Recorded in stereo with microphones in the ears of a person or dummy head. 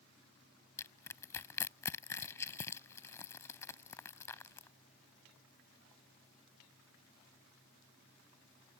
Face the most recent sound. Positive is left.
turn(degrees=15)  # may be behind; listen again after turning